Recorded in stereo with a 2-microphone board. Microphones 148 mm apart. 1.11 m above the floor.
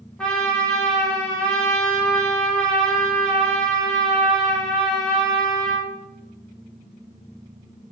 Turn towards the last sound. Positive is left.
turn(degrees=5)  # may be behind; listen again after turning